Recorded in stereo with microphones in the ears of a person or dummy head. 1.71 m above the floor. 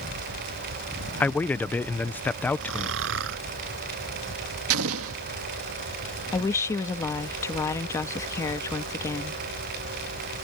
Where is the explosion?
70° right (ahead or behind).